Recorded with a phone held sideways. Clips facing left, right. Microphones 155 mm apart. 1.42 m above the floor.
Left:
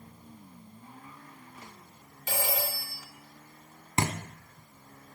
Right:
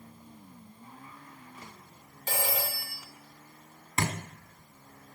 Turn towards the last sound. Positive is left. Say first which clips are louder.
# left 2 dB
turn(degrees=20)  # may be behind; listen again after turning